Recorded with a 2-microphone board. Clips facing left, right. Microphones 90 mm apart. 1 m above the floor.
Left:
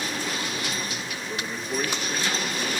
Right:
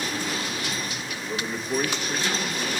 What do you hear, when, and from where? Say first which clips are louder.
1.1 s a man speaking: right 2 dB; 10° right (ahead or behind), 1.4 m